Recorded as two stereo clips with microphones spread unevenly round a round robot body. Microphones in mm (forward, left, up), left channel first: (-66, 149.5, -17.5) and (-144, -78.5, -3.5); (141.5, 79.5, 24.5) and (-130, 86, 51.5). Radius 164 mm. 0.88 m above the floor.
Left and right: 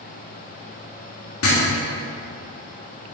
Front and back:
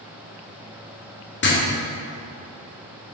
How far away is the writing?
About 1.9 m.